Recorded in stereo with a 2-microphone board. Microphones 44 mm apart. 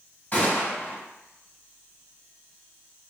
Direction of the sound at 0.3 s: 35° left (ahead or behind).